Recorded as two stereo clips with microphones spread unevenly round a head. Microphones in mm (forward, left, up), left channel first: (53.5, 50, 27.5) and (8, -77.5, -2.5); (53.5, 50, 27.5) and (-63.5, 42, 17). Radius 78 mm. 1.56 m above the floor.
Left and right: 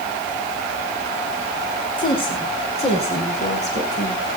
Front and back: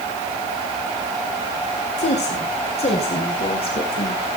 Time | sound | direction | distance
2.0 | a woman speaking | 20° left | 5 m